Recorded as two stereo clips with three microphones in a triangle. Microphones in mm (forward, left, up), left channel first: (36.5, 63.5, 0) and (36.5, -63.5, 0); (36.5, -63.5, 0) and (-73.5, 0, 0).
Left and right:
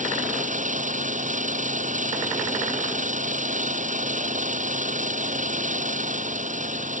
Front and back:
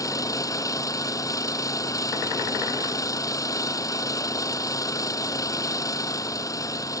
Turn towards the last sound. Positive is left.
turn(degrees=-95)